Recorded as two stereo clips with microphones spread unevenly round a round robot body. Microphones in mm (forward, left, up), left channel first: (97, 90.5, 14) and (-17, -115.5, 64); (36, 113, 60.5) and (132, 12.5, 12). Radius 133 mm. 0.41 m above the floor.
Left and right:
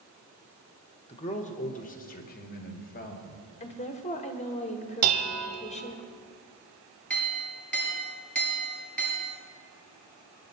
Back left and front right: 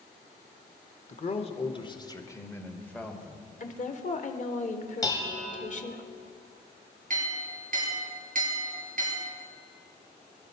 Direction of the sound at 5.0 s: 150° right.